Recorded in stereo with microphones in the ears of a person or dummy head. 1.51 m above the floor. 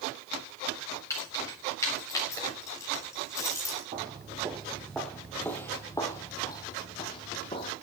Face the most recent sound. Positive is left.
turn(degrees=30)  # may be behind; listen again after turning